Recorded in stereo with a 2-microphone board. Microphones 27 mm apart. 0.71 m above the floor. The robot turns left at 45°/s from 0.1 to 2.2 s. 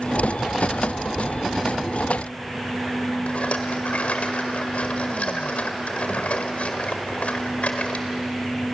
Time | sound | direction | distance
3.3 | a rattle | 65° left (ahead or behind) | 2.0 m